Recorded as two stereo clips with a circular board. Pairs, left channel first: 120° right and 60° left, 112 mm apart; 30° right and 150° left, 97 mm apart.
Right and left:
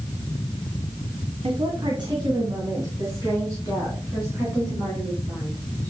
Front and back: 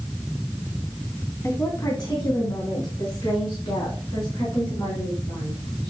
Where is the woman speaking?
25° left, 1.2 m; by 5.9 s 10° right, 6 m.